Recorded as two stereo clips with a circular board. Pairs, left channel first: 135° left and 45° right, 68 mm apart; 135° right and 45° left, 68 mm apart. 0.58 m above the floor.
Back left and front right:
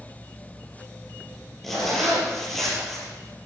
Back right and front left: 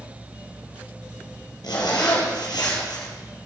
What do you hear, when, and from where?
1.6 s a zipper: 140° right, 3.5 m